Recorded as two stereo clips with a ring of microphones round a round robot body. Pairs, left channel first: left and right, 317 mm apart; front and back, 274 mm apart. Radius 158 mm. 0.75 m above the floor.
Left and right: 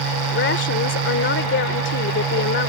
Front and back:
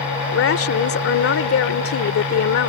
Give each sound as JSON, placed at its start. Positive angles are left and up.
{"t": 0.3, "sound": "a woman speaking", "azimuth_deg": 35}